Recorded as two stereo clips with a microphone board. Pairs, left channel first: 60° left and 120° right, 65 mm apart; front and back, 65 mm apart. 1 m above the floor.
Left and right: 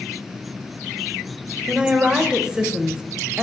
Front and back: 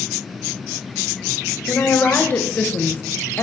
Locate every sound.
1.7 s a woman speaking: 50° right, 0.9 m